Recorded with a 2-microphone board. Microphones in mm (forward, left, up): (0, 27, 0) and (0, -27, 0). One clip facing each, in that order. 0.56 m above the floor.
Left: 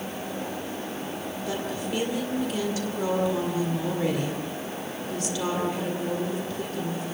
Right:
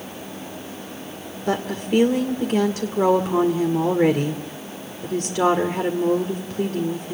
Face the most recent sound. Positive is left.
turn(degrees=-50)  # may be behind; listen again after turning